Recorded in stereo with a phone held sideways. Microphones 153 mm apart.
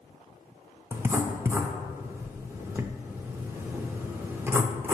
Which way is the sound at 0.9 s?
15° right (ahead or behind).